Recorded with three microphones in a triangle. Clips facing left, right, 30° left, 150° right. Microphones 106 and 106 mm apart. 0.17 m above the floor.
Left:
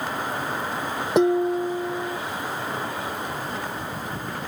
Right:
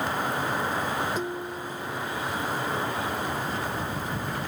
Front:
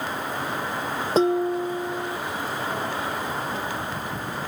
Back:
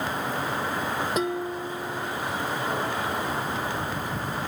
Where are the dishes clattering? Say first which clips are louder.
Left 12 dB, front 7 dB; 90° left.